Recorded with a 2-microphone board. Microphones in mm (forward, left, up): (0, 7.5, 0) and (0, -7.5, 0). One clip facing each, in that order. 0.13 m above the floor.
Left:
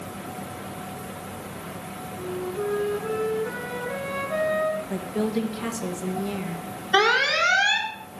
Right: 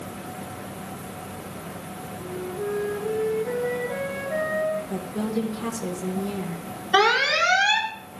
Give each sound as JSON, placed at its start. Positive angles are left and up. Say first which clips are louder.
{"t": 2.2, "sound": "a flute", "louder": "left 2 dB", "side_deg": 70, "distance_m": 4.5}
{"t": 4.9, "sound": "a woman speaking", "louder": "left 1 dB", "side_deg": 30, "distance_m": 2.5}
{"t": 6.9, "sound": "an alarm", "louder": "right 1 dB", "side_deg": 5, "distance_m": 1.6}